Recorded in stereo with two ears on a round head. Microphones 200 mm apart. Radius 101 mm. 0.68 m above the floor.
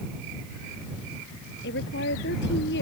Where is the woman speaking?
50° left (ahead or behind).